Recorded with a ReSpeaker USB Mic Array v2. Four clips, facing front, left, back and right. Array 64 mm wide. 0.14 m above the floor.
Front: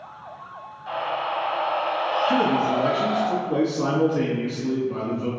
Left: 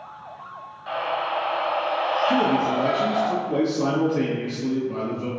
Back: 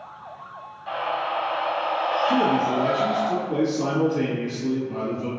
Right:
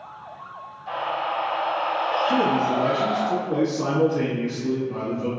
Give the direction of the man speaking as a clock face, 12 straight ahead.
12 o'clock.